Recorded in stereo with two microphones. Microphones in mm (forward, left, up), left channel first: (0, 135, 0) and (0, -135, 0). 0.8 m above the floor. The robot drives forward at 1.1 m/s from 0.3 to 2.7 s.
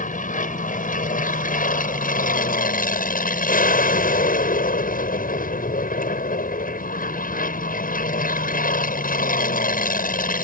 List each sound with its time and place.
0.0 s an aircraft: 30° left (ahead or behind)